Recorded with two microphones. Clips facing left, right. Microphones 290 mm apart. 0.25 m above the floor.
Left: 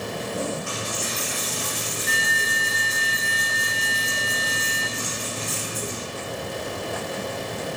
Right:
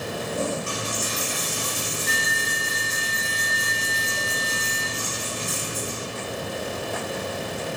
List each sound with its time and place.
0.7 s a dropped coin: 40° right (ahead or behind), 1.3 m